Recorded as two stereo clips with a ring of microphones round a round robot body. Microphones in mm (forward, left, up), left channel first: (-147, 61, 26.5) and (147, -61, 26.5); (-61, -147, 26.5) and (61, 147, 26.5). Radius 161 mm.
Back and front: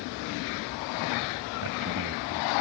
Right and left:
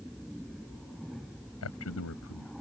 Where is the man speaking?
65° right.